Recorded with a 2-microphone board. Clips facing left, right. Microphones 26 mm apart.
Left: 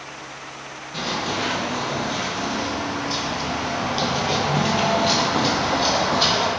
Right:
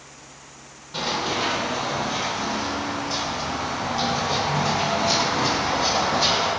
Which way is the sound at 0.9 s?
20° right (ahead or behind).